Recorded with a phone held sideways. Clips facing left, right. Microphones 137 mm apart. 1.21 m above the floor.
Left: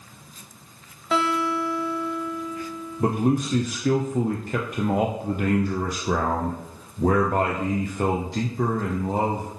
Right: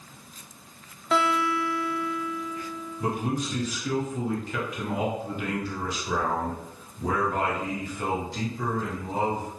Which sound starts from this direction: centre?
A guitar, at 1.1 s.